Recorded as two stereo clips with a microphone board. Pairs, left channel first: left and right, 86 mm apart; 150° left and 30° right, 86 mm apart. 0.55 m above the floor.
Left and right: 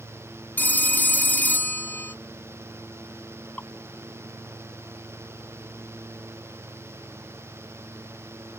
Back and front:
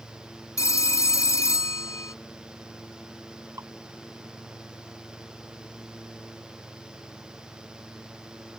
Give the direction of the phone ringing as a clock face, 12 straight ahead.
7 o'clock.